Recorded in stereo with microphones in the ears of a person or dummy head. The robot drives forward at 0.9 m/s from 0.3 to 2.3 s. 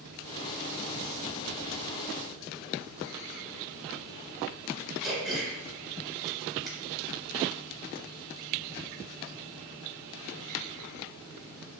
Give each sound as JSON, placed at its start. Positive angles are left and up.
{"t": 5.0, "sound": "throat clearing", "side_deg": 0, "distance_m": 1.6}